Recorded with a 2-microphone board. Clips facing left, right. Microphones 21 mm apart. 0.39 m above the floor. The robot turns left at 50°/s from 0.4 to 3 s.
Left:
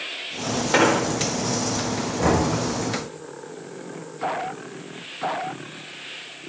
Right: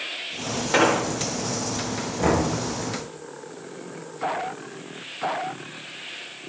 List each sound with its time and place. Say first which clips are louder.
0.7 s an explosion: left 1 dB; 10° left (ahead or behind), 0.7 m; by 1.0 s centre (ahead or behind), 0.7 m
2.2 s knocking: left 1 dB; 15° left (ahead or behind), 4.5 m; by 2.5 s 5° left (ahead or behind), 4.5 m